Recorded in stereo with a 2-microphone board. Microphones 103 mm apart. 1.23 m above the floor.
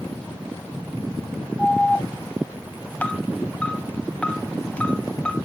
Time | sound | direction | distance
1.6 | an alarm | 15° left (ahead or behind) | 0.9 m